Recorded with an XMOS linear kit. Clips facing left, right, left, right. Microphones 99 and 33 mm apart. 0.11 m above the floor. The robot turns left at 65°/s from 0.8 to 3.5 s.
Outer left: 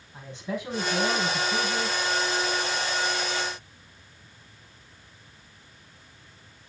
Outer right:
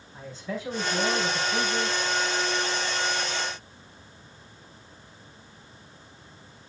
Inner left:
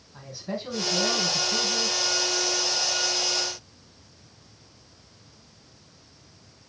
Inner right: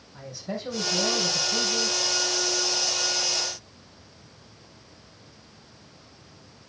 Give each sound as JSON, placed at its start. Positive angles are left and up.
{"t": 0.1, "sound": "a man speaking", "azimuth_deg": 165, "distance_m": 4.0}